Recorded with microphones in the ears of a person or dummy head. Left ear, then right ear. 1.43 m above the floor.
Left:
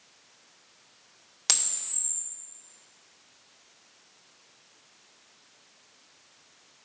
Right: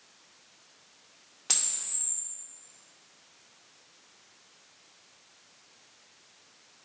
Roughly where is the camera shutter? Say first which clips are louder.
Left 4 dB; left.